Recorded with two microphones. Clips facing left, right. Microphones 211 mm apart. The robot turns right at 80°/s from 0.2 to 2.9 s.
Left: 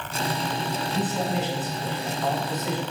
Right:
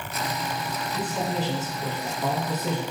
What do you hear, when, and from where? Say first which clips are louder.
0.9 s a man speaking: left 1 dB; 175° right, 3 m; by 2.8 s 30° right, 3 m